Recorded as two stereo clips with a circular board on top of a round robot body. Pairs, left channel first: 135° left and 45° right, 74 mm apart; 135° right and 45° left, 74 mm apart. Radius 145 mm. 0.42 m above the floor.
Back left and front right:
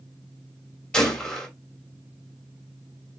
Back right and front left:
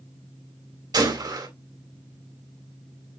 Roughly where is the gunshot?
Ahead left.